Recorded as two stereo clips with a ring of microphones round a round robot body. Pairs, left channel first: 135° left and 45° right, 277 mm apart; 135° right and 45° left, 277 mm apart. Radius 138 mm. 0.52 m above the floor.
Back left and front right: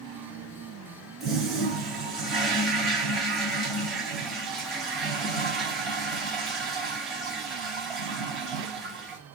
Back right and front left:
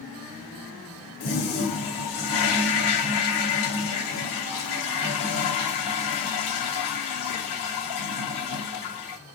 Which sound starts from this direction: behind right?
A toilet flushing, at 1.2 s.